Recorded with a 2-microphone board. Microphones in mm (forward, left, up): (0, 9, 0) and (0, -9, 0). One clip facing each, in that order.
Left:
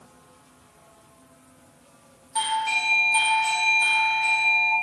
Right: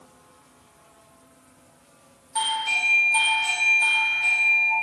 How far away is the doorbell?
About 1.0 m.